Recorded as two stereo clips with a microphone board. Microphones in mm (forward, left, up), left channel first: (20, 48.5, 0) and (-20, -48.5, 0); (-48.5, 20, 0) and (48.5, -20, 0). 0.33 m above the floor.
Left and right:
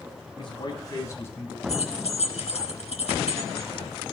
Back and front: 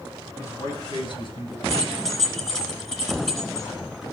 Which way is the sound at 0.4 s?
100° left.